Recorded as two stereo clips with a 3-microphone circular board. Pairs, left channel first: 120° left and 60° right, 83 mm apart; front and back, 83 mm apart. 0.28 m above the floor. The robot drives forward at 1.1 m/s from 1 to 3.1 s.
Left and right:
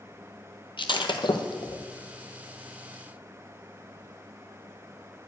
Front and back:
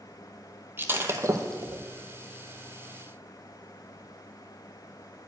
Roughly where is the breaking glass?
Behind left.